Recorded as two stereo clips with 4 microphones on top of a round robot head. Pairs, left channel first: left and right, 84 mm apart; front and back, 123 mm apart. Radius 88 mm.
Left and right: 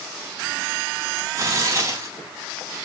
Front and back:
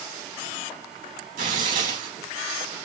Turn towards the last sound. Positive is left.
turn(degrees=-145)